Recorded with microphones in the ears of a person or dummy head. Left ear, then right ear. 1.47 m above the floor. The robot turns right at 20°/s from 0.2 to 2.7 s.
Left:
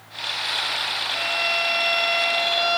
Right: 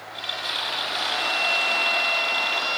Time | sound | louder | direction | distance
1.1 | a violin | right 1 dB | straight ahead | 2.5 m